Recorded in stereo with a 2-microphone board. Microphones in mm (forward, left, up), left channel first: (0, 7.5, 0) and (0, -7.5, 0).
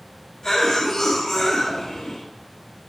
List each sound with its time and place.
0.4 s a cough: 55° left (ahead or behind), 2.5 m